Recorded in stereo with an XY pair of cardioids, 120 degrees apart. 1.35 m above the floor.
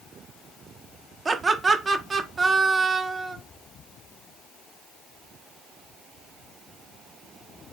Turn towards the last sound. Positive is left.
turn(degrees=-25)